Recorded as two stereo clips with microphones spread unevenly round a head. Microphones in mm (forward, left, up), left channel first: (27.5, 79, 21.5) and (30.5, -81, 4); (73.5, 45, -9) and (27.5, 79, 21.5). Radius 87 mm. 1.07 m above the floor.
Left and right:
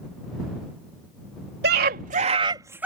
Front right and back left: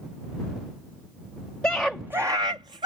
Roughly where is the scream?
Behind right.